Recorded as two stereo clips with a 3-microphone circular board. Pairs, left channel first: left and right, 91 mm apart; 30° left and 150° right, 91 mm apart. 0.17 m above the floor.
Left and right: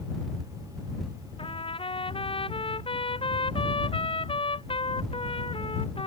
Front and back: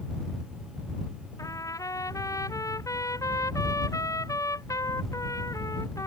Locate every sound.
1.4 s a trumpet: 80° left